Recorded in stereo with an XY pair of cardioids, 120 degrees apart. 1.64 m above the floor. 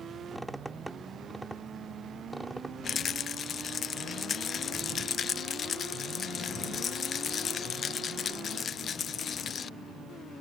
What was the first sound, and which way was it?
A squeak, 10° right.